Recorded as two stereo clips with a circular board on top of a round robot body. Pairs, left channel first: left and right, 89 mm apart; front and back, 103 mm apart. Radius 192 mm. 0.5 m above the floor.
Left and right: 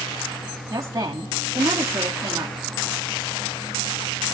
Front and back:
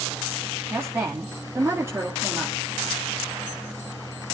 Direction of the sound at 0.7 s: 120° right.